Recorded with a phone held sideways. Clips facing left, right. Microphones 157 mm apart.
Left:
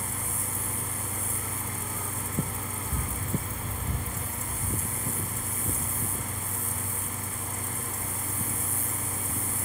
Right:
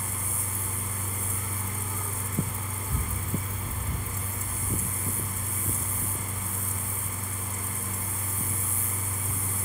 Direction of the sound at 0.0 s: 65° left (ahead or behind).